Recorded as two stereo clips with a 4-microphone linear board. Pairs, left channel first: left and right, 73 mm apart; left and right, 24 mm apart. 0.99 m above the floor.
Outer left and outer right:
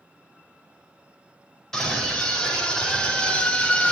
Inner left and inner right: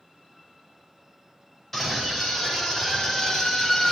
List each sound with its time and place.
1.7 s a scream: 5° left (ahead or behind), 5 m; by 3.9 s 15° left (ahead or behind), 3.5 m